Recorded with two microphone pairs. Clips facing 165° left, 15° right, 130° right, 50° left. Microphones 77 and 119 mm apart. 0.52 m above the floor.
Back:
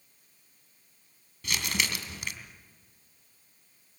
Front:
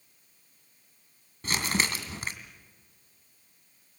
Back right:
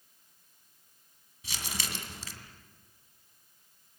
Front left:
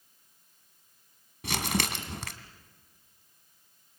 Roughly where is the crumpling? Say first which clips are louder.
Front 3 dB, front left 10 dB; ahead left.